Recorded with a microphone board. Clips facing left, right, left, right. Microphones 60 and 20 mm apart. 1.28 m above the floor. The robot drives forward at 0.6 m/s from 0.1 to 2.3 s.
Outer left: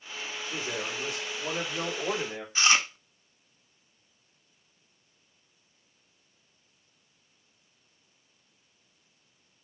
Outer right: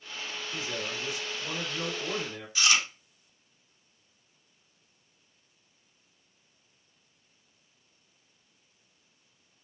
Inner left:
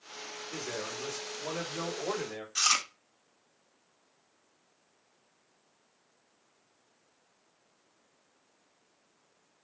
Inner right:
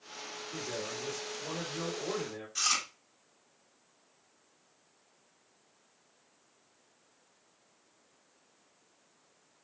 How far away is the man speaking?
About 3.5 m.